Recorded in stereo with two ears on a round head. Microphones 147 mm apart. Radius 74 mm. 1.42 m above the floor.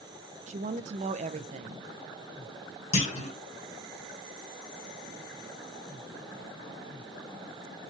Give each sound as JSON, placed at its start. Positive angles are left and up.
{"t": 0.5, "sound": "a woman speaking", "side_deg": -45, "distance_m": 0.5}
{"t": 2.9, "sound": "a clunk", "side_deg": 45, "distance_m": 1.3}